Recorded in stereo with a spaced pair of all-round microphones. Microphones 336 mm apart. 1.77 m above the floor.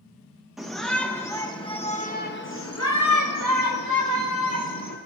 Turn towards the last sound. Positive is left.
turn(degrees=65)  # may be behind; listen again after turning